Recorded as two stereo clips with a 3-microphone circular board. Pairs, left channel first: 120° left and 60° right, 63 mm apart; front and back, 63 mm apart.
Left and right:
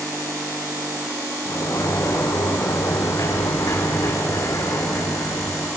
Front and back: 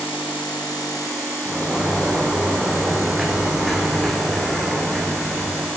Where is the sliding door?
90° left, 6 m.